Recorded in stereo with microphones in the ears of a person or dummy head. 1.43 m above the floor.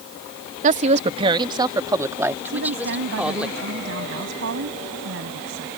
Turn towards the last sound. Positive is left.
turn(degrees=-70)  # may be behind; listen again after turning